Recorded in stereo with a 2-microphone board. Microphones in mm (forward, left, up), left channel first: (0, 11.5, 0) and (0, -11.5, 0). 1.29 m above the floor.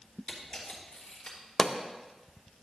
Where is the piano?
No piano in this recording.